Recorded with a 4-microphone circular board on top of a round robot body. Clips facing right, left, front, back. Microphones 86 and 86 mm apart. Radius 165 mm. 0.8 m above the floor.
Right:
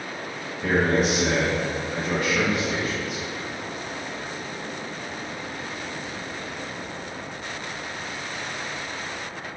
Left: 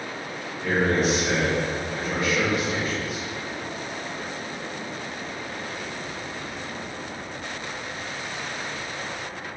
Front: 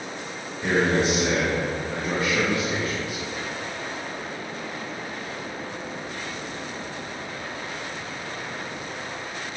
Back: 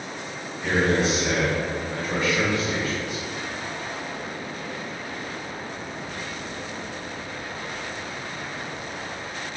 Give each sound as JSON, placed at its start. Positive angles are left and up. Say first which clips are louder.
{"t": 0.6, "sound": "a man speaking", "louder": "right 1 dB, even", "azimuth_deg": -50, "distance_m": 1.6}